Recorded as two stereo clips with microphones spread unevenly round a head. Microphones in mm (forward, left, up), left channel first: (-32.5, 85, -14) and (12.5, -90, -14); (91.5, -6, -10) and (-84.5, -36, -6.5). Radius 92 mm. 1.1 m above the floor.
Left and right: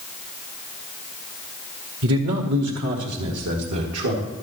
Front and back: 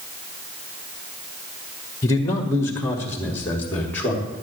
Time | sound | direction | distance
2.0 | a man speaking | 60° right | 1.4 m